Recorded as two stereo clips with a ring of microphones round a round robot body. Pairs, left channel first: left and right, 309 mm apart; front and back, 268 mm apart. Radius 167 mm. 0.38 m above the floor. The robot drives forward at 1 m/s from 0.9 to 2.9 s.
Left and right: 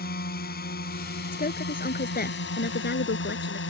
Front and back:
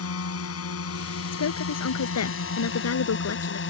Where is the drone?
30° left; by 3.7 s 40° left.